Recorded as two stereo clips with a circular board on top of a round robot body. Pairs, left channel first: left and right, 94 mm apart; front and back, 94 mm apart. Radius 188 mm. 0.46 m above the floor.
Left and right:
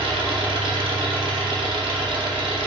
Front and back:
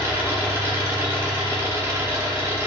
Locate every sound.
0.0 s an engine running: 110° right, 0.9 m